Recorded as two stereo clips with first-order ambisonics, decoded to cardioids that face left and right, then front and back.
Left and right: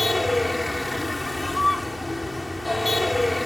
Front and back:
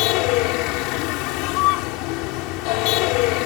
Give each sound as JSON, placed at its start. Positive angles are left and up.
{"t": 0.0, "sound": "a vehicle", "azimuth_deg": 5}